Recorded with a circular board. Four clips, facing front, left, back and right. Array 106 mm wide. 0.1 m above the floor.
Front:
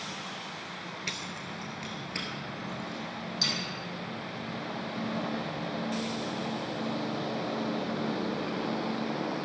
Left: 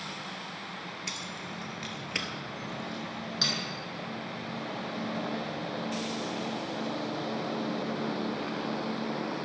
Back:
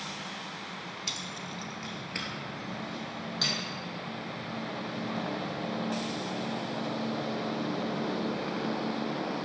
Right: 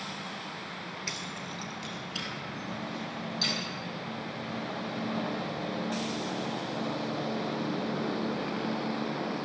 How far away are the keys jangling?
About 1.0 m.